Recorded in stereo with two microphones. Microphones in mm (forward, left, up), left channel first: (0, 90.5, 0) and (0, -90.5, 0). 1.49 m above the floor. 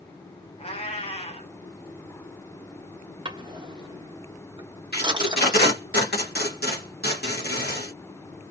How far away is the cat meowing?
About 1.0 m.